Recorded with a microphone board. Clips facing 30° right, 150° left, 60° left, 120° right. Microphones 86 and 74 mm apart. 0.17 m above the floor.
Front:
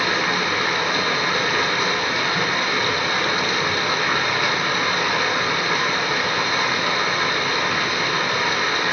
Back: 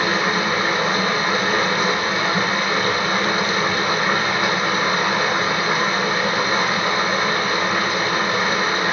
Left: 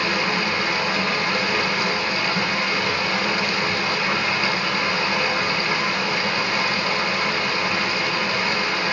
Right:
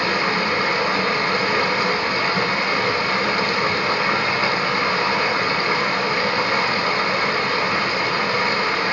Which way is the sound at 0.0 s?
160° right.